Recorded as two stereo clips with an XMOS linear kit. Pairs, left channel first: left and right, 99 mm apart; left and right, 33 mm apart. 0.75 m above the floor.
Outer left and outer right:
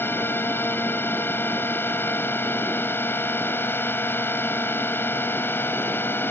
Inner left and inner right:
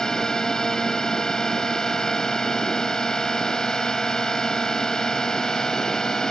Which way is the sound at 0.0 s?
20° left (ahead or behind).